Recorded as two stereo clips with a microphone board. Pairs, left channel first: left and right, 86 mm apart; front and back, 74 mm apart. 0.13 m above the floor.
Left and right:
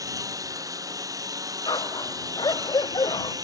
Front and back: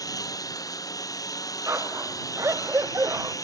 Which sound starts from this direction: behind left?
A dog barking, at 1.7 s.